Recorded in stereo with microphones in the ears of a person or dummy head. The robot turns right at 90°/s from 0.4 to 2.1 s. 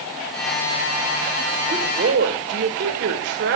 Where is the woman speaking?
160° right, 1.9 m; by 3.6 s 120° right, 1.9 m.